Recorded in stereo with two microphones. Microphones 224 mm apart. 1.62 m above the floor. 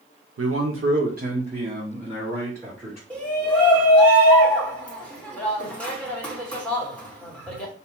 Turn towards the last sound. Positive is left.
turn(degrees=5)  # may be behind; listen again after turning